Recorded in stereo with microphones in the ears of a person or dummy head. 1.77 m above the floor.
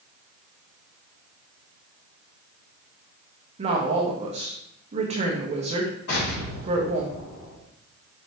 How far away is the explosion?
About 4.5 m.